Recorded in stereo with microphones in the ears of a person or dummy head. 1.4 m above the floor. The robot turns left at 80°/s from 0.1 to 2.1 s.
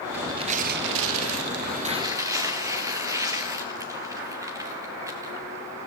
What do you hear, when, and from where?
0.1 s tearing paper: 10° right, 1.8 m; by 5.5 s 165° right, 1.8 m